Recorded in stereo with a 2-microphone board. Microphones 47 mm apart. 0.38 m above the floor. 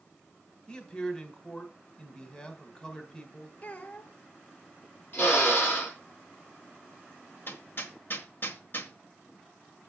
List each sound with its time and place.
0.7 s a man speaking: 20° left (ahead or behind), 1.7 m
3.6 s a child speaking: 35° left (ahead or behind), 0.9 m
5.1 s a drill: 40° left (ahead or behind), 4.5 m
7.5 s hammering: 50° left (ahead or behind), 1.3 m